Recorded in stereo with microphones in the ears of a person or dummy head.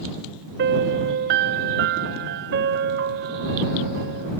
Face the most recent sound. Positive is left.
turn(degrees=-60)  # may be behind; listen again after turning